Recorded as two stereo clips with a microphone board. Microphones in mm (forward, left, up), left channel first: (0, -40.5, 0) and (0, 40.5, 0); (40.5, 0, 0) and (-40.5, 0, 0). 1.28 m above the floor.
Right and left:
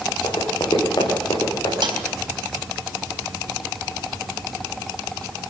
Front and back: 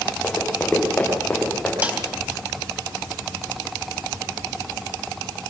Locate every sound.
0.2 s running footsteps: 80° right, 5.5 m; by 1.7 s 75° right, 7 m
1.8 s a snare drum: 110° left, 3 m